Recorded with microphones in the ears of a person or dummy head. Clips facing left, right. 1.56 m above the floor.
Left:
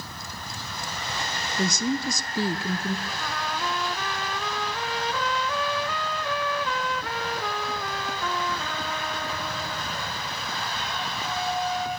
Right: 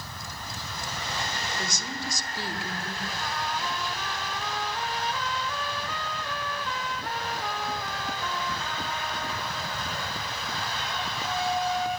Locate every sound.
1.6 s a woman speaking: 80° left, 1.1 m
3.1 s a trumpet: 60° left (ahead or behind), 0.7 m